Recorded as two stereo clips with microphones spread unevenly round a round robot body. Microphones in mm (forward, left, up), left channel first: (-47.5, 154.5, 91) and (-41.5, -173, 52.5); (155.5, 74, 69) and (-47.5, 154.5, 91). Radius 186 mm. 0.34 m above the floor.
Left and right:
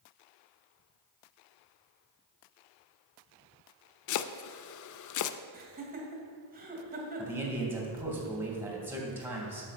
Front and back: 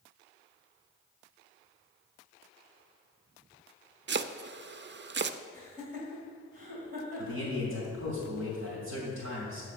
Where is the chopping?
120° left, 0.5 m.